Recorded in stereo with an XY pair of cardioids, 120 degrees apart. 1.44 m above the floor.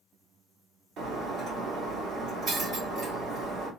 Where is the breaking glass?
55° right, 2 m.